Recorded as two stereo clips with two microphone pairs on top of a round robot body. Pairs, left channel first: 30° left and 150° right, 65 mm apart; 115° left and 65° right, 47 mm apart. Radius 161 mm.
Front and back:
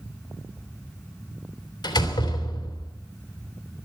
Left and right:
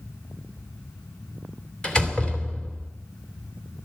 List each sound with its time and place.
1.8 s a door slam: 40° left, 2.5 m